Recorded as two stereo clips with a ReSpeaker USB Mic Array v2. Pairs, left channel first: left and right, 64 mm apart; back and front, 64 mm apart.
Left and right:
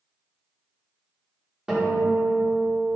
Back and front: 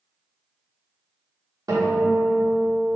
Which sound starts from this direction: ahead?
A guitar, at 1.7 s.